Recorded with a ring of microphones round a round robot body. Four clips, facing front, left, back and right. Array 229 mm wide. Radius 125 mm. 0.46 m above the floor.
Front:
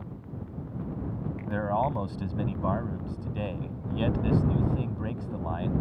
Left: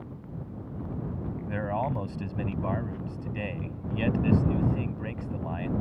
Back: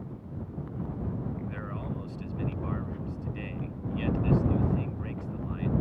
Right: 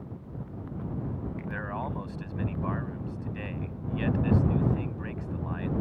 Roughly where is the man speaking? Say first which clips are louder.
Left 6 dB, front 10 dB; ahead left.